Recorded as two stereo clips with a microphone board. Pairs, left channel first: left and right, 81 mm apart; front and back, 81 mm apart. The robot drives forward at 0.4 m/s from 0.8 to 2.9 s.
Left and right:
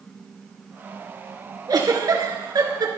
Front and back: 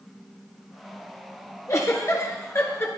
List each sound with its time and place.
1.7 s a giggle: 50° right, 3 m; by 2.9 s 60° right, 2.5 m